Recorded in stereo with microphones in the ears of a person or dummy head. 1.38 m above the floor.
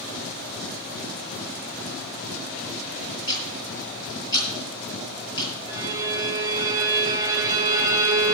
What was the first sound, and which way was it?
Ticking, 20° left (ahead or behind).